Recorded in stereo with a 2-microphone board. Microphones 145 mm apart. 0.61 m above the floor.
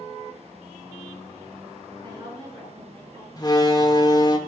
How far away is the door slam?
About 1.4 m.